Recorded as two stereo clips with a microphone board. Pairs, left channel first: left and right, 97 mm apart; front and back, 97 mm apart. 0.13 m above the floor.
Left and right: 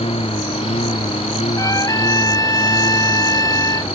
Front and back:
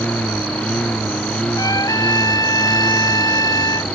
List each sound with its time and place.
0.0 s a lawn mower: 80° left
1.6 s a trumpet: 45° left